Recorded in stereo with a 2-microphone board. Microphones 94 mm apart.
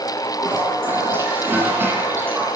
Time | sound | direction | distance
0.4 | a toilet flushing | 20° right (ahead or behind) | 9 m